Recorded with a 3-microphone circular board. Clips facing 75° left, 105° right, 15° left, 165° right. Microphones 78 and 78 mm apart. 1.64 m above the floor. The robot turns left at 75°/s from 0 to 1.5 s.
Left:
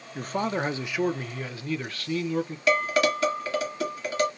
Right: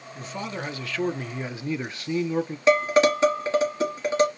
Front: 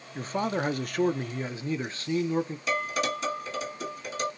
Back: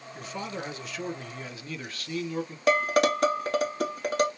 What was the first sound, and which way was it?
A man speaking, 65° left.